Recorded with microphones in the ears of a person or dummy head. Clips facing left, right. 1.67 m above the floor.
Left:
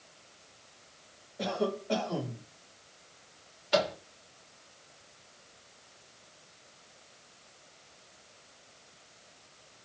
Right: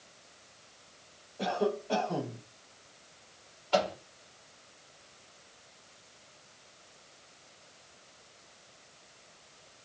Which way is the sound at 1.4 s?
15° left (ahead or behind).